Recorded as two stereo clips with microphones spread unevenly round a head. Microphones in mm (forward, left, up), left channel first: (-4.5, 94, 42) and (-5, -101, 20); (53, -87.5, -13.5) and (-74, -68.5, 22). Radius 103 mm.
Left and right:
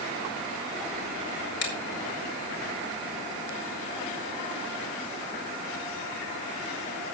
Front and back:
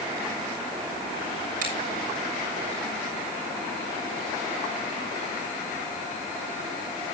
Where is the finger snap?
120° left, 3 m.